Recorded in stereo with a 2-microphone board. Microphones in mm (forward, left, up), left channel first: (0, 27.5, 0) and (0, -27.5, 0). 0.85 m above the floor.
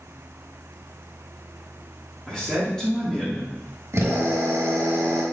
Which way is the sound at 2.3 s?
15° left (ahead or behind).